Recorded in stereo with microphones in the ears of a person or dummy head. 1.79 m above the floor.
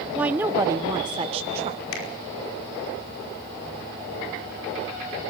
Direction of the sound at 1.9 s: 80° left.